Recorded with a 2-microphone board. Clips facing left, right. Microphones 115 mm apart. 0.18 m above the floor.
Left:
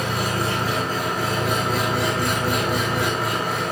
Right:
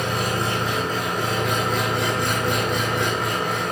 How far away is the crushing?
I don't hear crushing.